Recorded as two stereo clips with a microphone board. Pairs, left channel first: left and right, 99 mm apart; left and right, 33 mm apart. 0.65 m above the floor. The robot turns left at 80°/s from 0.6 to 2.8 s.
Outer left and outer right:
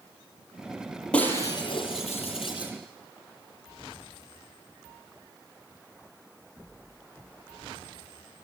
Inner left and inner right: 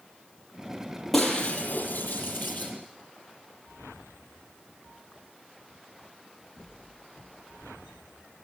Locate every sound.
1.1 s breaking glass: 170° left, 7 m; by 2.7 s 45° left, 7 m